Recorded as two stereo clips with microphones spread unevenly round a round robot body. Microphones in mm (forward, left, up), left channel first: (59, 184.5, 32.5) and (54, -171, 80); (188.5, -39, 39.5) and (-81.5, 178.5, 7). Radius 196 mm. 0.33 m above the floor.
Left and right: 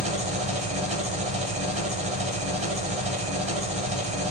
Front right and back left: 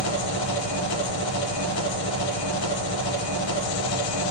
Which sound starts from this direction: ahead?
An engine running, at 0.0 s.